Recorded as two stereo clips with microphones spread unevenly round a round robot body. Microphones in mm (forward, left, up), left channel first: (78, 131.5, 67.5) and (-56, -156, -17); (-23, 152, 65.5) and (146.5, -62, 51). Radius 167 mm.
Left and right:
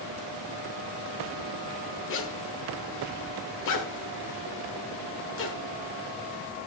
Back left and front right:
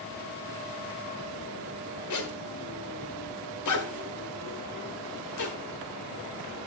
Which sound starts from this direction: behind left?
A zipper, at 2.1 s.